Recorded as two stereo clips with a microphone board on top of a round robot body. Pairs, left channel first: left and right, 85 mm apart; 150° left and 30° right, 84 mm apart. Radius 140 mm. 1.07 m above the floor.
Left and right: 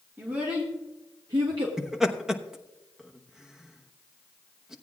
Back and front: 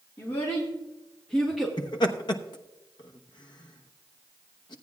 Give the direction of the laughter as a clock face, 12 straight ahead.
6 o'clock.